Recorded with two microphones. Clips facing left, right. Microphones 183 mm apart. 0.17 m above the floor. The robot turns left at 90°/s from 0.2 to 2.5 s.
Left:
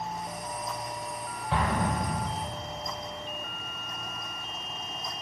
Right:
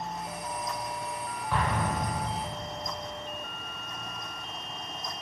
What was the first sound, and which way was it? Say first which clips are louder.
An explosion: left 2 dB; 20° left (ahead or behind).